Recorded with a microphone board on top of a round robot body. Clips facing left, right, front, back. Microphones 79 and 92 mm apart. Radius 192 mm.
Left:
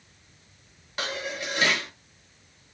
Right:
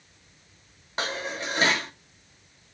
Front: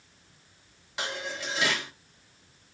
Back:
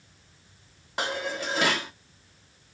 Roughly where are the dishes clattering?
Behind right.